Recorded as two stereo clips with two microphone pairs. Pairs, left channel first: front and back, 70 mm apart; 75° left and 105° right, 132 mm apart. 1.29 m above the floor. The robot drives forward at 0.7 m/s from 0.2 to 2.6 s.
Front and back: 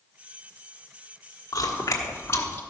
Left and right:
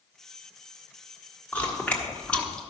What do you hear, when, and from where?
1.5 s chewing: straight ahead, 1.4 m; by 2.6 s 5° right, 0.8 m